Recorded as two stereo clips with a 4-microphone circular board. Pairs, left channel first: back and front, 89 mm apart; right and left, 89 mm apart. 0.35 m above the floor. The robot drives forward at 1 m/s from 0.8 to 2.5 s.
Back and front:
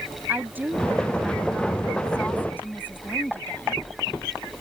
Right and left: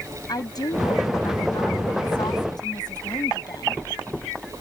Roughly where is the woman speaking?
Ahead right.